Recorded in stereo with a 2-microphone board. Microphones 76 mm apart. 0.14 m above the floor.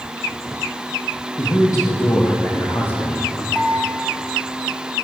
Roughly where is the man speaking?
Left.